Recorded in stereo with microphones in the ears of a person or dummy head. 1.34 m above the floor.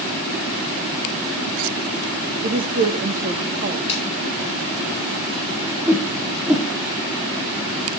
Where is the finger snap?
35° left (ahead or behind), 5.5 m.